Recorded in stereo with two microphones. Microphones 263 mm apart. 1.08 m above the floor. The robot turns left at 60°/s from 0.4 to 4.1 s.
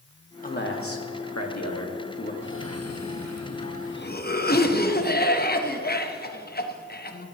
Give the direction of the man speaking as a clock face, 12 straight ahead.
7 o'clock.